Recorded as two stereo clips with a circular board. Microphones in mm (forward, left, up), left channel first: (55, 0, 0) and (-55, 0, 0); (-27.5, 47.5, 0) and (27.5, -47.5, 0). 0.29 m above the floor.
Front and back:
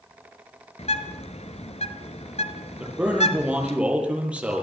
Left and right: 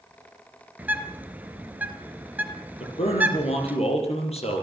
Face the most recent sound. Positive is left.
turn(degrees=100)